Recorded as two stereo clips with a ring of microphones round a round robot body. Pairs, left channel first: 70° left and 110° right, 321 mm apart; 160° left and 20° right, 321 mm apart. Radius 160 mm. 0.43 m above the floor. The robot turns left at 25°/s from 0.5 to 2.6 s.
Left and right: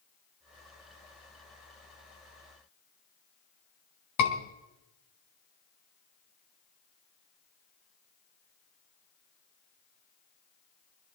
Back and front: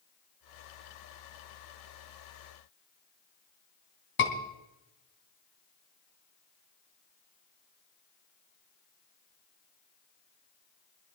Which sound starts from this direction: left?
A scream, at 4.2 s.